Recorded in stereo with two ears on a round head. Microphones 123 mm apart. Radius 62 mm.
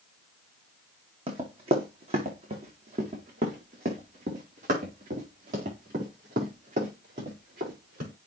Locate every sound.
1.3 s running footsteps: 40° right (ahead or behind), 2.5 m; by 8.1 s 65° right (ahead or behind), 6 m